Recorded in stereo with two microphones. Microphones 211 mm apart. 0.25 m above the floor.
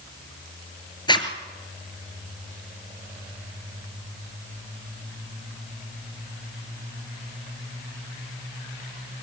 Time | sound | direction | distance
1.1 | a zipper | 25° left (ahead or behind) | 3.5 m